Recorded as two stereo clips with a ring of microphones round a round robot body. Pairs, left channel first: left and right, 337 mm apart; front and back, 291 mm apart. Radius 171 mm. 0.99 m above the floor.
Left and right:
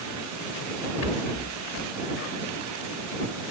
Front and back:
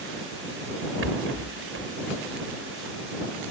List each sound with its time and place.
1.0 s a rattle: 135° left